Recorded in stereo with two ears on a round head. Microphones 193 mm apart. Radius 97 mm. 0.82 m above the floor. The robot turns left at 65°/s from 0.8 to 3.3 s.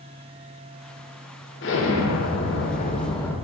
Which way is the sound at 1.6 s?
120° left.